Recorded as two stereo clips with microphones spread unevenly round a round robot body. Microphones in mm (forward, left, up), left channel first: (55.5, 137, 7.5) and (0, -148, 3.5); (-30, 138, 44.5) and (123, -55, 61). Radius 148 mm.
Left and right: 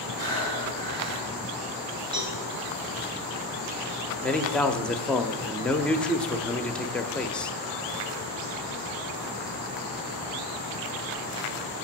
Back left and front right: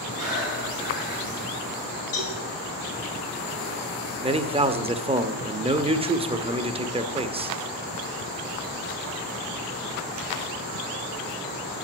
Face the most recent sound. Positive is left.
turn(degrees=-5)